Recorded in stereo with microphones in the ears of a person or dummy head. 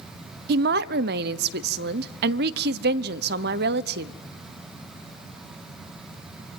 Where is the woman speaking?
60° right (ahead or behind), 0.8 m.